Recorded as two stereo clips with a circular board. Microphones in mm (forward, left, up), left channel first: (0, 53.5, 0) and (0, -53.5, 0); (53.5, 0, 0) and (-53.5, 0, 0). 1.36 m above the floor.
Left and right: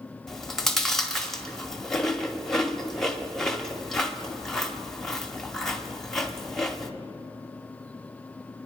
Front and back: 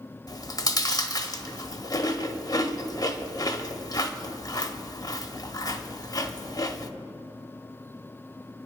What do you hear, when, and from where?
0.3 s chewing: 5° left, 1.0 m